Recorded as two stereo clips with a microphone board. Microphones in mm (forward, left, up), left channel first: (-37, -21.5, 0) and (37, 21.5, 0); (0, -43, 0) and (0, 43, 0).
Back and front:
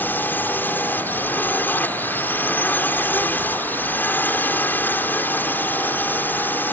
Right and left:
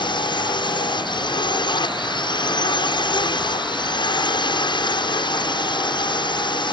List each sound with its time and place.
0.0 s a drone: 85° right